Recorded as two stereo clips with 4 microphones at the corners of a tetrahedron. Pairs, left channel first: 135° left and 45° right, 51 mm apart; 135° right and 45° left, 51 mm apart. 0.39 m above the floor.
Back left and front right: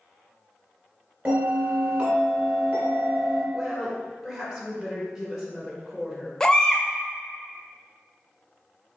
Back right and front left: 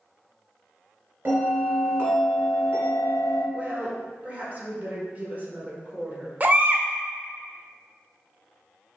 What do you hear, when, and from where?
1.2 s a bell: 5° left, 1.9 m
3.5 s a woman speaking: 25° left, 1.2 m
6.4 s a baby crying: 65° left, 0.5 m